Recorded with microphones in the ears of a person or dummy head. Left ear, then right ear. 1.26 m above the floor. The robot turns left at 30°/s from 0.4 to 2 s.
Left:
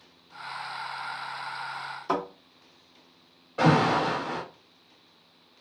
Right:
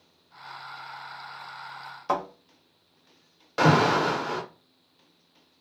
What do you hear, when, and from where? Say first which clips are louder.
2.1 s a thud: right 2 dB; 15° right (ahead or behind), 1.6 m
3.6 s an alarm: right 2 dB; 75° right (ahead or behind), 0.8 m